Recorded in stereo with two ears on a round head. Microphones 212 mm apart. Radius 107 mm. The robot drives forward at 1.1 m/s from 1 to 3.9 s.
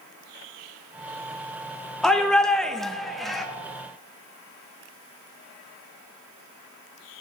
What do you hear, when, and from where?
2.0 s a shout: centre (ahead or behind), 0.6 m